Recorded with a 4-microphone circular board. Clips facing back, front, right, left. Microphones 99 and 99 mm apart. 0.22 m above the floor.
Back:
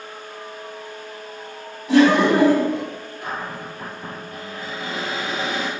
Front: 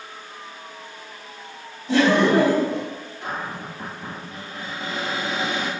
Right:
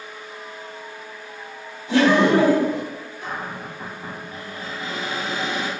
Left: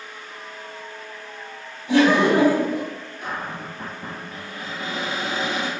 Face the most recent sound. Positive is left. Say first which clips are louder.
# even, left 1 dB
turn(degrees=65)